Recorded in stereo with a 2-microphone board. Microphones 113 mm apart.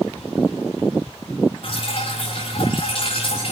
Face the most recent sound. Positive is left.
turn(degrees=60)  # may be behind; listen again after turning